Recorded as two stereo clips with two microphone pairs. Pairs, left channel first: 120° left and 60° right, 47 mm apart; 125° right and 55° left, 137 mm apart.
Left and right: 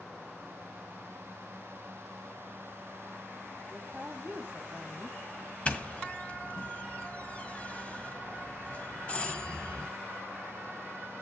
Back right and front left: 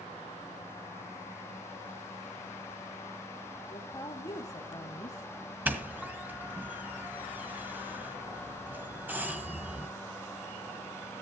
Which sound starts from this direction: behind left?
A doorbell, at 5.7 s.